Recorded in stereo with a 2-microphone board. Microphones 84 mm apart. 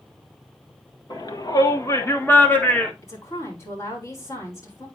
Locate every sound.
1.1 s a shout: 60° left (ahead or behind), 1.9 m; by 2.9 s 10° left (ahead or behind), 2.0 m
3.0 s a woman speaking: 35° left (ahead or behind), 4.5 m